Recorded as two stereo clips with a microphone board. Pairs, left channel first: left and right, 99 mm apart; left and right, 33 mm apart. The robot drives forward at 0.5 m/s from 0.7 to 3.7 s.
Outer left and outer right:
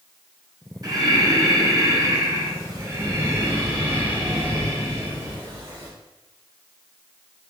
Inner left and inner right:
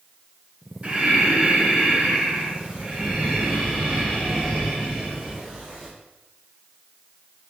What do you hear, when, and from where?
0.8 s breathing: 45° right (ahead or behind), 1.0 m; by 5.9 s 25° right (ahead or behind), 1.8 m